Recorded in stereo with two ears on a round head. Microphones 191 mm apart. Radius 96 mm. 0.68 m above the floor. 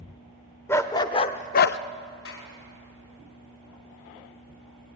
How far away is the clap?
About 4.5 m.